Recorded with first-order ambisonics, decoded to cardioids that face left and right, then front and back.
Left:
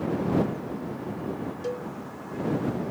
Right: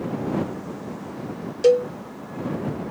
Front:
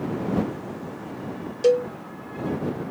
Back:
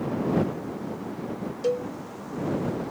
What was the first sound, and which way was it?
A cowbell, 60° right.